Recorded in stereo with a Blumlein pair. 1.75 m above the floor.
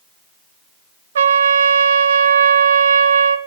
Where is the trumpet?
65° right, 0.9 m.